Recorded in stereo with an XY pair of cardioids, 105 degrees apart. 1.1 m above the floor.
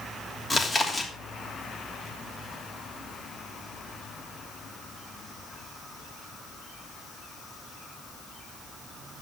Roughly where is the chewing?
Ahead.